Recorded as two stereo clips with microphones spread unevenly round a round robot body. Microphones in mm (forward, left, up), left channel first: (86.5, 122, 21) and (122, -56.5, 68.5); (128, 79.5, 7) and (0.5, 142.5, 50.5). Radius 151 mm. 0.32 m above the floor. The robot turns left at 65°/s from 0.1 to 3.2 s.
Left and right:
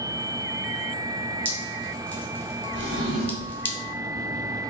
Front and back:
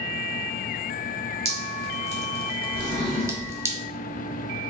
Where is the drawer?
60° right, 1.2 m; by 3.6 s 90° right, 1.2 m.